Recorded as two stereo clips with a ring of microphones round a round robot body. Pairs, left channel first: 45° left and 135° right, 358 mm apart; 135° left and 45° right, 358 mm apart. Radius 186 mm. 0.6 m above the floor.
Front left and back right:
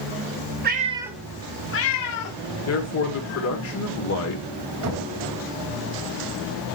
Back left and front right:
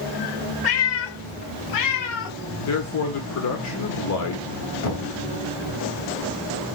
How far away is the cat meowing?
About 1.1 m.